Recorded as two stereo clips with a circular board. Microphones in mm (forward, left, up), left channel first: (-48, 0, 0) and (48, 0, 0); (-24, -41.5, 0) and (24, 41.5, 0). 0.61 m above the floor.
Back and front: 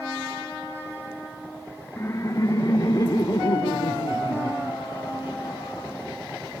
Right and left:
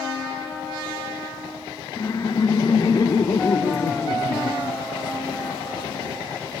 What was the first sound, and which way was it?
Laughter, 135° right.